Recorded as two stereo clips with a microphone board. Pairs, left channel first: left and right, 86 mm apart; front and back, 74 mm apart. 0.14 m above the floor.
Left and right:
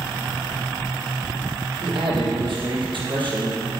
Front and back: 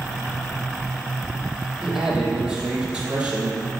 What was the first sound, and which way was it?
A man speaking, 95° right.